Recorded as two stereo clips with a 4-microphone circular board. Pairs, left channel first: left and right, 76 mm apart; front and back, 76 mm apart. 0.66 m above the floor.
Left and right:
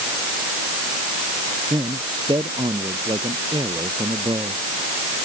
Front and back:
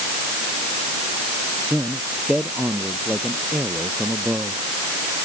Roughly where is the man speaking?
Right.